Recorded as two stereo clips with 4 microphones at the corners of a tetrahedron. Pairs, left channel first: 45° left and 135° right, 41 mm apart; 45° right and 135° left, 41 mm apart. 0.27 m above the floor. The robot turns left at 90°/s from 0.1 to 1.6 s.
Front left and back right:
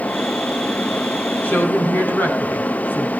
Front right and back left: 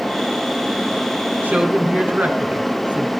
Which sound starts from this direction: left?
A woman speaking, at 1.4 s.